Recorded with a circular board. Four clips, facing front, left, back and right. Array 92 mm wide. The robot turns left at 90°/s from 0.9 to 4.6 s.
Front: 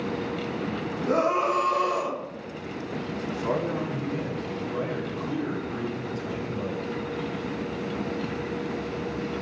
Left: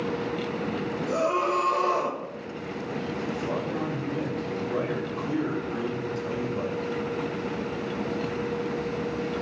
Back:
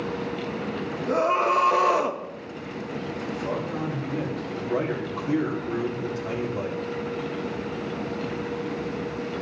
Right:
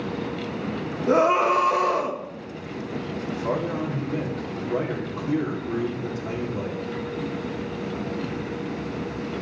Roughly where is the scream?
Right.